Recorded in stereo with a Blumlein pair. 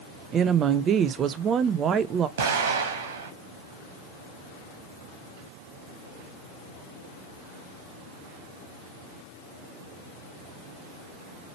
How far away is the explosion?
About 0.8 m.